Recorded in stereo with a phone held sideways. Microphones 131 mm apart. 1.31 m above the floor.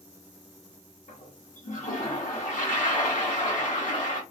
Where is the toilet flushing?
75° left (ahead or behind), 1.6 m.